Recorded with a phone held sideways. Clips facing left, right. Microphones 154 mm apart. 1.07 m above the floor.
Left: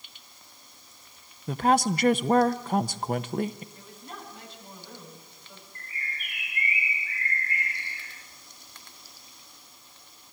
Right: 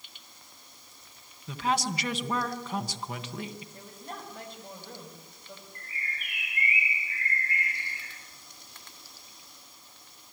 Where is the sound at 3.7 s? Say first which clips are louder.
Right 1 dB; 50° right (ahead or behind), 6.5 m.